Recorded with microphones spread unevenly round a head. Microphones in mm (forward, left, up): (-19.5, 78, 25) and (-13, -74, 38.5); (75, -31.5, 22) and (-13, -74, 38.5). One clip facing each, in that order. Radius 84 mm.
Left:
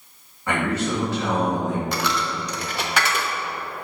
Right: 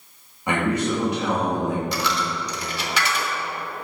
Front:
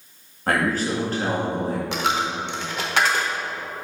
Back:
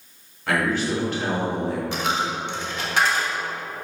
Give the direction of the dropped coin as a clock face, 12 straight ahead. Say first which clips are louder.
Even, front 1 dB; 10 o'clock.